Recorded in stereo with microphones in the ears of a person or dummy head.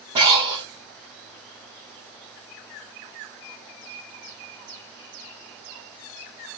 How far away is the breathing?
About 2 m.